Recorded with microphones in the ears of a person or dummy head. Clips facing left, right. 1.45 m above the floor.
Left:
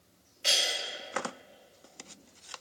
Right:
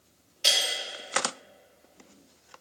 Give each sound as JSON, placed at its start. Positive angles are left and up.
{"t": 0.4, "sound": "breaking glass", "side_deg": -55, "distance_m": 2.0}